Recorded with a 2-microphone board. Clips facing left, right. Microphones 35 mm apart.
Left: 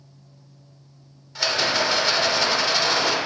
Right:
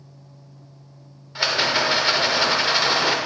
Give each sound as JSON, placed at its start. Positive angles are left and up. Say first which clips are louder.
{"t": 1.4, "sound": "a rattle", "louder": "right 1 dB", "side_deg": -20, "distance_m": 1.0}